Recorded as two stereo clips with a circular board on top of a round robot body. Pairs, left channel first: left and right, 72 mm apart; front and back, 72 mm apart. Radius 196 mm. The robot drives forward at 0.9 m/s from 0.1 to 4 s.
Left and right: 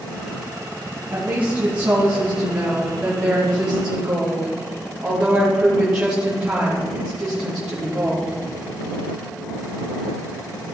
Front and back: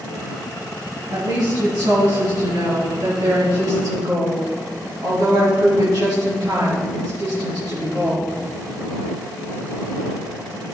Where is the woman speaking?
155° right, 4.5 m; by 8.3 s 165° right, 7 m.